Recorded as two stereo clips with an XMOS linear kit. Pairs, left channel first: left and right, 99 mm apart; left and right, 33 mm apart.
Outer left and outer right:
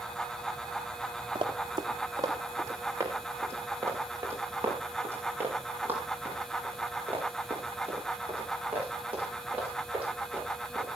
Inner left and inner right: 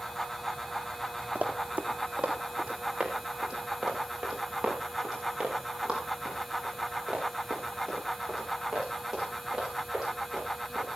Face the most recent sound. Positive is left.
turn(degrees=-15)  # may be behind; listen again after turning